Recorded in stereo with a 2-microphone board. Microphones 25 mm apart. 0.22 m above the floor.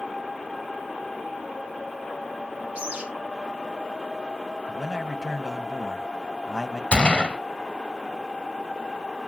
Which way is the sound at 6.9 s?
45° left (ahead or behind).